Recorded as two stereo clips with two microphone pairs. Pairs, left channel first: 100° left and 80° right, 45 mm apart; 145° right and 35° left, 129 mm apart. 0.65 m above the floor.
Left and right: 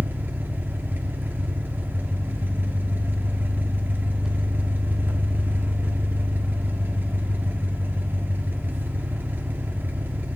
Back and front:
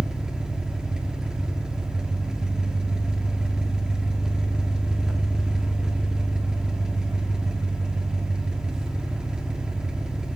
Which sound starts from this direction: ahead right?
An engine running, at 0.0 s.